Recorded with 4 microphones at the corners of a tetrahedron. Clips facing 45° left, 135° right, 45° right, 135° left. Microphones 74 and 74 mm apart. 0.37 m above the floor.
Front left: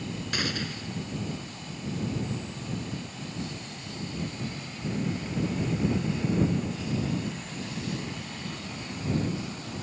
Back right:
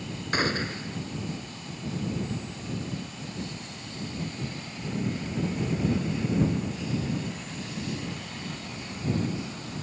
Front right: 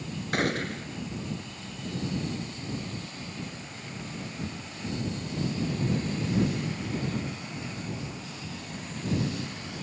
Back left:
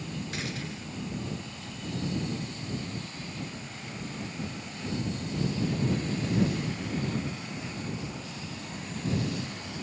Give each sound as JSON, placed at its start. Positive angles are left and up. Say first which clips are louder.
{"t": 0.3, "sound": "a gunshot", "louder": "back right 6 dB, front right 8 dB", "azimuth_deg": -80}